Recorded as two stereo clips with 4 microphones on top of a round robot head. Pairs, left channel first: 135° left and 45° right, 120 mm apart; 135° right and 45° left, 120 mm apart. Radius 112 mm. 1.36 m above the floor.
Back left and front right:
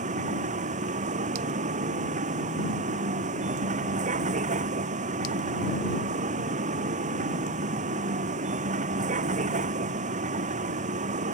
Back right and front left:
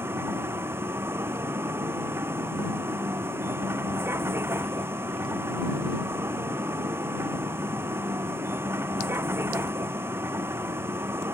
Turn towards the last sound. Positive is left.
turn(degrees=-25)